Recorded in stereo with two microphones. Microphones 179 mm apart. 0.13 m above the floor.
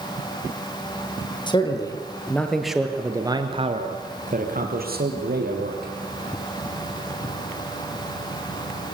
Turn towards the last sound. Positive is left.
turn(degrees=-75)  # may be behind; listen again after turning